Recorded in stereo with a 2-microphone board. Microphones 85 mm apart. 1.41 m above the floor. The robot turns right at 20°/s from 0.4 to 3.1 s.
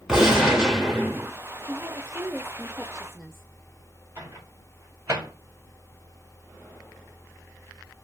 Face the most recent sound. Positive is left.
turn(degrees=-30)  # may be behind; listen again after turning